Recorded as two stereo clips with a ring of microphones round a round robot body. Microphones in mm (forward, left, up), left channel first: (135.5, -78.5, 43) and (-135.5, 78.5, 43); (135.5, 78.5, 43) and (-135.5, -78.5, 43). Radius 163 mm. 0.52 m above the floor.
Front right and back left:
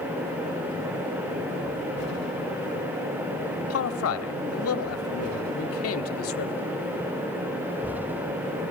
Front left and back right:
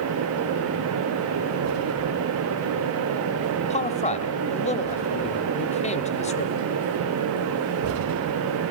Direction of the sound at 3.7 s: 30° right.